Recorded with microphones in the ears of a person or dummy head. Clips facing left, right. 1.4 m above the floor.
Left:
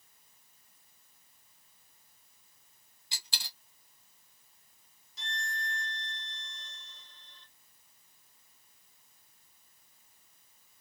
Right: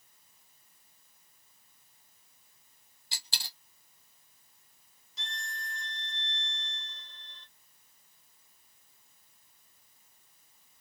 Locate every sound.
3.1 s a dropped coin: 35° right (ahead or behind), 0.9 m
5.2 s a violin: 65° right (ahead or behind), 0.8 m